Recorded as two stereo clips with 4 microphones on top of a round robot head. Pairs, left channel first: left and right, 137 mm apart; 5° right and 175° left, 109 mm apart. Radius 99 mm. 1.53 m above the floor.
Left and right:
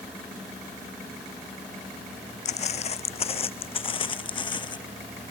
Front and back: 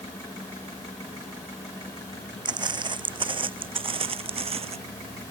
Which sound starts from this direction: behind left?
Footsteps, at 2.5 s.